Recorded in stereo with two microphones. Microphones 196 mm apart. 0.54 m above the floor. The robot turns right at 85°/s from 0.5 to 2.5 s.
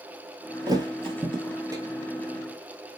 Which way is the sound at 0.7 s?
20° right (ahead or behind).